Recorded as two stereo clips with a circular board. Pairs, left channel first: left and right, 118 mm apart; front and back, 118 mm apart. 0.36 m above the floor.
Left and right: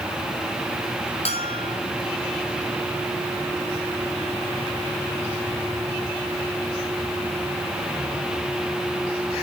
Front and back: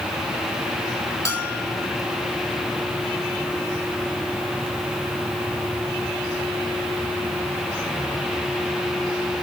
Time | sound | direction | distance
1.2 | a bell | 65° left | 3.5 m